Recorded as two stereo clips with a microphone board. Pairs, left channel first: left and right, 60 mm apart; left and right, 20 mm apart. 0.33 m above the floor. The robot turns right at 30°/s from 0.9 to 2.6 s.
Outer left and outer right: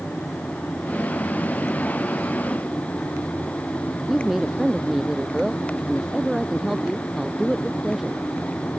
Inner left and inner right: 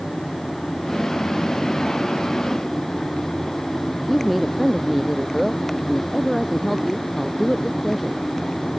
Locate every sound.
4.1 s a woman speaking: 5° right (ahead or behind)